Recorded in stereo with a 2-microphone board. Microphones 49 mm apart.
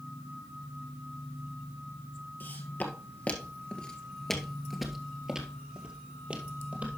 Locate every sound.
2.4 s footsteps: 40° left (ahead or behind), 1.9 m; by 6.9 s 35° right (ahead or behind), 2.5 m